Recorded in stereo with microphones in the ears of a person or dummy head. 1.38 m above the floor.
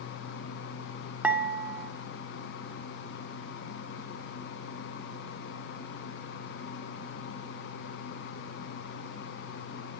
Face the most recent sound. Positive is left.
turn(degrees=0)  # may be behind; listen again after turning